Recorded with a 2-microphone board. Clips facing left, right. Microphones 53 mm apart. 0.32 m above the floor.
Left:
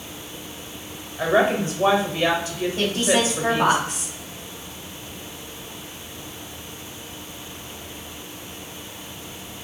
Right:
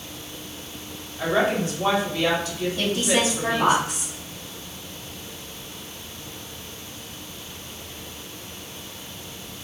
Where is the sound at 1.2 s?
30° left (ahead or behind), 1.3 m.